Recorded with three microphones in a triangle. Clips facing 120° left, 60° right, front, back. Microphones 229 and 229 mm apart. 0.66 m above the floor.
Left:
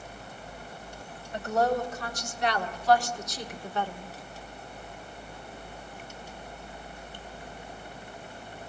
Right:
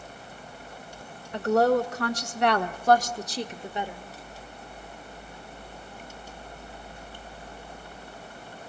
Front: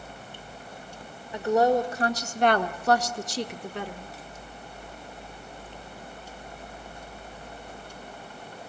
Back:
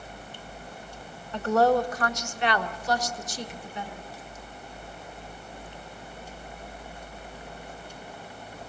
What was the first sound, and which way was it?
A woman speaking, 80° right.